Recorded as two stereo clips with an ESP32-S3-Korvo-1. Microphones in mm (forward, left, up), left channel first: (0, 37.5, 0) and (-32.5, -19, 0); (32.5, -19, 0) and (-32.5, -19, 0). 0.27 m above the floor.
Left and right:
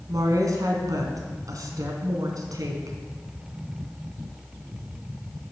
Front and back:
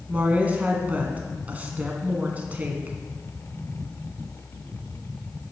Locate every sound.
0.1 s a woman speaking: 115° right, 2 m